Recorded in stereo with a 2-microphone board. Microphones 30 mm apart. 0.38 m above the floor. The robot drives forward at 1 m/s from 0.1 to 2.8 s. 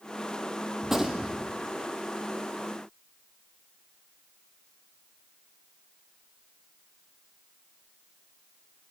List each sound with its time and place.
0.8 s a gunshot: 10° right (ahead or behind), 2.5 m; by 1.5 s 5° right (ahead or behind), 3.5 m